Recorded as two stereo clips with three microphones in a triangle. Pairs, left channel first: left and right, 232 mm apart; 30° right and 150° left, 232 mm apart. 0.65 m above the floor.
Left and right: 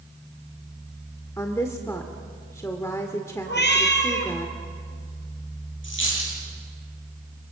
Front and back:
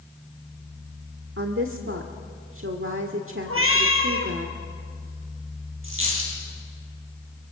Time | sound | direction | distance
1.4 | a woman speaking | 165° left | 1.5 m
3.5 | a cat meowing | 130° left | 3 m
5.8 | a dropped coin | 120° left | 8.5 m